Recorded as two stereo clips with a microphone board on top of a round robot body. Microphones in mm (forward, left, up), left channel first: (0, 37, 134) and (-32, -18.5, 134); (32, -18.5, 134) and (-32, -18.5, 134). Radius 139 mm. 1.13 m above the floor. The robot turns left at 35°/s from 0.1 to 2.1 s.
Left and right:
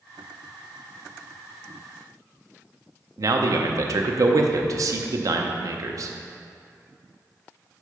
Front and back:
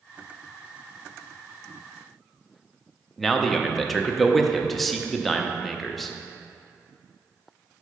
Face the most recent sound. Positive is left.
turn(degrees=-90)